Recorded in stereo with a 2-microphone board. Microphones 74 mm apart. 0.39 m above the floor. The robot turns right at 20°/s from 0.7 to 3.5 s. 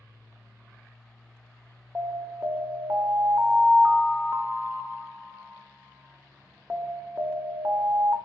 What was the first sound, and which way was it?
An alarm, 105° right.